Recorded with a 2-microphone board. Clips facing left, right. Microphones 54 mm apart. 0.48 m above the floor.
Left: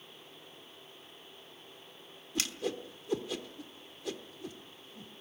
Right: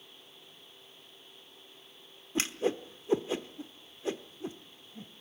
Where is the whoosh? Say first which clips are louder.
Right 5 dB; 30° right (ahead or behind), 1.0 m.